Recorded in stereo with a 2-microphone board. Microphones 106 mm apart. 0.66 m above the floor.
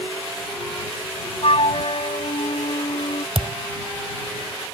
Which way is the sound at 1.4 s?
65° left (ahead or behind).